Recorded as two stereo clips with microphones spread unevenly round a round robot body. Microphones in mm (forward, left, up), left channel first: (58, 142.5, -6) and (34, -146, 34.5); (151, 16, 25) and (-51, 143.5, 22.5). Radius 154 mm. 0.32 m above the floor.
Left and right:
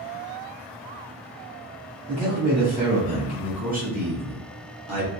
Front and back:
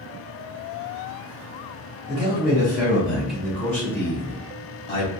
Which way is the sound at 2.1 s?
160° left.